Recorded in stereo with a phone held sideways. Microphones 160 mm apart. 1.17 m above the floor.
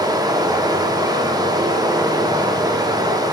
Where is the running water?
25° right (ahead or behind), 0.8 m.